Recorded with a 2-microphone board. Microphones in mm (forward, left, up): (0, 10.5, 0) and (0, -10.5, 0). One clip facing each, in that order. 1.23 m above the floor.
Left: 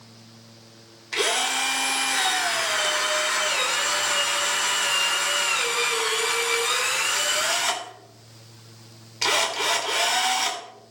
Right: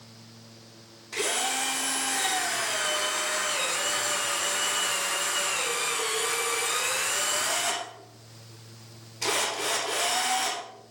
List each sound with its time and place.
1.1 s a drill: 50° left (ahead or behind), 2.5 m